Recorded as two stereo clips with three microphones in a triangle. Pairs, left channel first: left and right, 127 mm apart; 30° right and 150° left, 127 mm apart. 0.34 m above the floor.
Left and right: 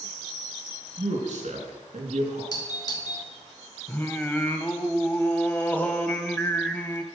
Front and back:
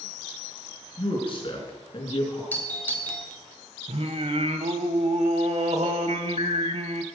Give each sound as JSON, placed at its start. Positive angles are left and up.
{"t": 1.0, "sound": "a man speaking", "azimuth_deg": -70, "distance_m": 4.0}
{"t": 2.5, "sound": "a doorbell", "azimuth_deg": 40, "distance_m": 1.9}
{"t": 3.9, "sound": "singing", "azimuth_deg": 160, "distance_m": 0.9}